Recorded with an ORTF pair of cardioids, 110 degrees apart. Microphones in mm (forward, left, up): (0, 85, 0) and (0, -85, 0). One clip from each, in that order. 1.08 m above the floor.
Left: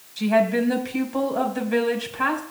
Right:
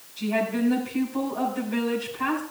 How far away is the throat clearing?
I don't hear throat clearing.